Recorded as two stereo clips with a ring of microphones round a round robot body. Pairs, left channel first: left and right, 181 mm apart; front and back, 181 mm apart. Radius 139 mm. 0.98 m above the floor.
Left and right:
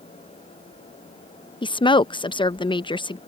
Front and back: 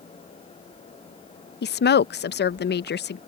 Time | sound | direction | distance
1.6 | a woman speaking | 25° left | ?